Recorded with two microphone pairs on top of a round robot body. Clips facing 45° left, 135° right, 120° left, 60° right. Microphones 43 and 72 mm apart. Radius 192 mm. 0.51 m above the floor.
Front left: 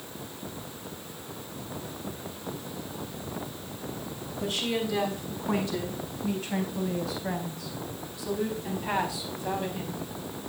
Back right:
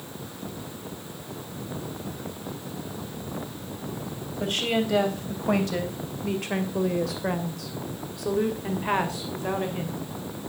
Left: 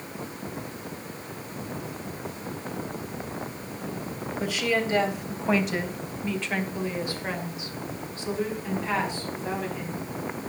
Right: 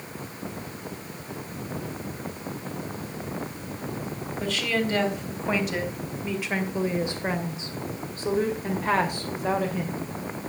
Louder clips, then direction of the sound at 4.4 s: Back right 4 dB, left 1 dB; 160° right.